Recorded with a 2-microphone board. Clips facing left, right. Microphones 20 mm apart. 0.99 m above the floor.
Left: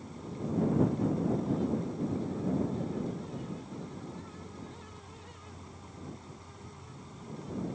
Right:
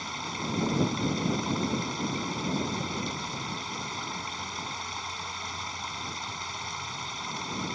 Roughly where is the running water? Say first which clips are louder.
Right 7 dB; right.